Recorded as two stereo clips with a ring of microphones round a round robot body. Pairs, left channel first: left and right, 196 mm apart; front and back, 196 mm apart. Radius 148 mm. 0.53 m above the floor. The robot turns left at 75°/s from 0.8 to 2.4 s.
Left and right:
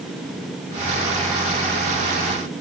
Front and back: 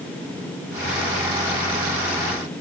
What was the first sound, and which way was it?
Only background noise.